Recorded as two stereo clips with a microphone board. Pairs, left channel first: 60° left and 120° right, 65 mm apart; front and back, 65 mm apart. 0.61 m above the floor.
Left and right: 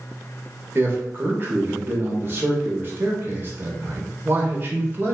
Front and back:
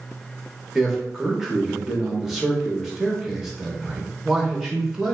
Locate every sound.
0.8 s a man speaking: 95° right, 0.8 m